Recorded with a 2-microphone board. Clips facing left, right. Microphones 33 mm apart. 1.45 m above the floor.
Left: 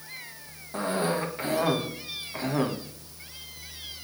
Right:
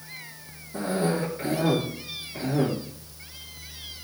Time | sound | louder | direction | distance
0.7 | a cough | right 1 dB | 60° left (ahead or behind) | 1.8 m